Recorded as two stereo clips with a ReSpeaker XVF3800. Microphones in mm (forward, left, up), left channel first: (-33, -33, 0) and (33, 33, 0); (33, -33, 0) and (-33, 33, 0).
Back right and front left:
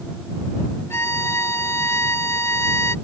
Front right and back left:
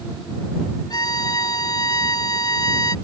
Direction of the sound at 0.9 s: 80° right.